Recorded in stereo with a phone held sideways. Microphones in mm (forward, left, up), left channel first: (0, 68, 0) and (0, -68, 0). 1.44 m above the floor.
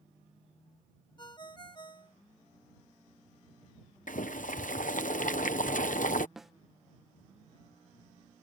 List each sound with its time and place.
1.2 s a ringtone: 35° left (ahead or behind)
4.1 s boiling: 75° left (ahead or behind)
6.4 s a snare drum: centre (ahead or behind)